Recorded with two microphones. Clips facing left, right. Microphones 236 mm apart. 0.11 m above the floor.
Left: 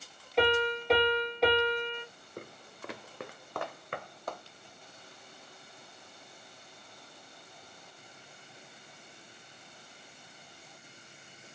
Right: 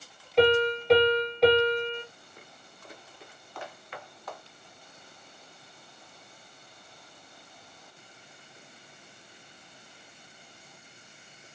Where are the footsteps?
55° left (ahead or behind), 0.5 m; by 4.4 s 45° left (ahead or behind), 1.2 m.